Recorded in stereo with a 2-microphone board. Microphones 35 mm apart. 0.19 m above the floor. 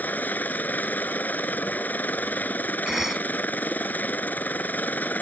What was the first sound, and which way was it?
A helicopter, 60° left (ahead or behind).